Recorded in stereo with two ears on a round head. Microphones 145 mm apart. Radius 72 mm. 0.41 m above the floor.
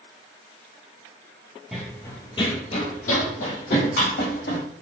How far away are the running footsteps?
About 0.6 m.